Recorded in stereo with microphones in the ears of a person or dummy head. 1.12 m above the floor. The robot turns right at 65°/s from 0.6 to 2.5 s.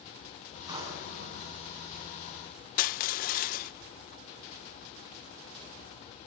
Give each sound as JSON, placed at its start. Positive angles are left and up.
{"t": 0.7, "sound": "a drawer", "azimuth_deg": -155, "distance_m": 7.0}
{"t": 2.8, "sound": "crushing", "side_deg": 55, "distance_m": 0.7}